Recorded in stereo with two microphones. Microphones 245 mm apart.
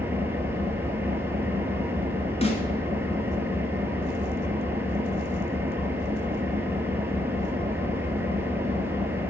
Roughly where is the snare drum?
Left.